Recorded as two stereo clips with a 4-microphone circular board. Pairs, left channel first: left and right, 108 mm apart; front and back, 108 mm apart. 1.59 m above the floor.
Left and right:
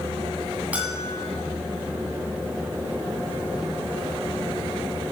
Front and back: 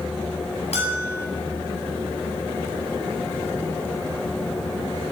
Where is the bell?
15° right, 9.5 m.